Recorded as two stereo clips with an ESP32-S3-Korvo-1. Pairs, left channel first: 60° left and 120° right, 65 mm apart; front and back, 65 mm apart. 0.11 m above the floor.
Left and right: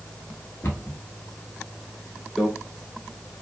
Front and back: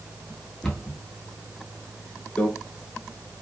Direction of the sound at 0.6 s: 70° left.